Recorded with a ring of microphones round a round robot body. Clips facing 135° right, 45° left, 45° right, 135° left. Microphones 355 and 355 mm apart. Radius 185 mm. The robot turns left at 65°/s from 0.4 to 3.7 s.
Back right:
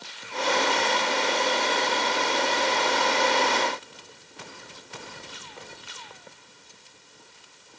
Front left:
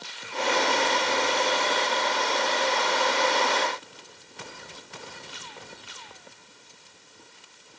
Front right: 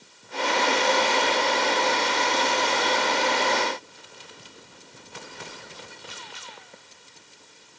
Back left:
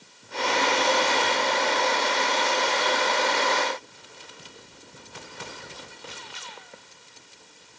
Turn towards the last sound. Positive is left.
No sound to turn to.